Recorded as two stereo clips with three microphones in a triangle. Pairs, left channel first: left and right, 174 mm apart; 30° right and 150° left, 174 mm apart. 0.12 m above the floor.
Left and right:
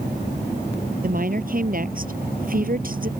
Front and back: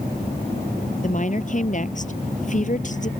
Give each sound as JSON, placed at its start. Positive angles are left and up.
{"t": 1.0, "sound": "a woman speaking", "azimuth_deg": -65}